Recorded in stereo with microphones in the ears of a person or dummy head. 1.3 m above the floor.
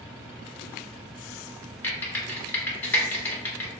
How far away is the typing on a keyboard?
About 1.1 m.